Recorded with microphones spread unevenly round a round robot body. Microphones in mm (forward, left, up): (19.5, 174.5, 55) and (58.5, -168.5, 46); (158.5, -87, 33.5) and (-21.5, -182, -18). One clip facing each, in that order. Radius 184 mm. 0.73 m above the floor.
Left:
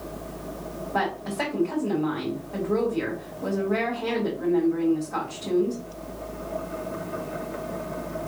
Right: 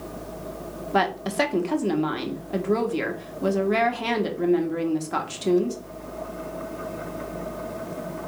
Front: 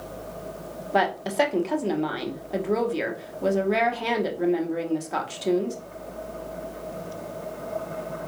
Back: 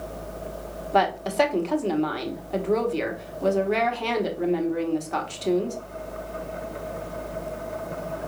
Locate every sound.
0.9 s a woman speaking: 65° right, 1.2 m